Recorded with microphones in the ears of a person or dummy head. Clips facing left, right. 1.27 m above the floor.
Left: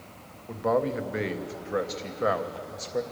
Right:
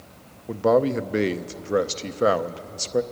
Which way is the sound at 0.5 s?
50° right (ahead or behind).